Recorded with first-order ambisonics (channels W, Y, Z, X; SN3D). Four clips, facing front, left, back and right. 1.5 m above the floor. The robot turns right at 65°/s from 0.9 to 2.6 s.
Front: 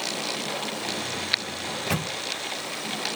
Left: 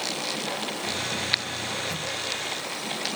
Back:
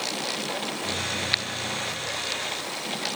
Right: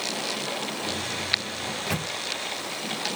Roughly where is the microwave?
Ahead right.